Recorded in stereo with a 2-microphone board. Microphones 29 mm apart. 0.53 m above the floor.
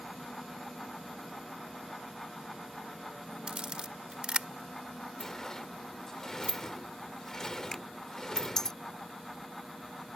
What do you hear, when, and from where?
3.5 s a camera shutter: 40° right (ahead or behind)
5.2 s a sliding door: 25° left (ahead or behind)
7.7 s a finger snap: 15° left (ahead or behind)